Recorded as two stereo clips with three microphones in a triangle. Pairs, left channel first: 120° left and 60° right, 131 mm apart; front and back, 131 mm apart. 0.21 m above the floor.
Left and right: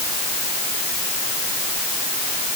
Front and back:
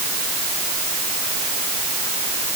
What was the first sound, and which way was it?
Only background noise.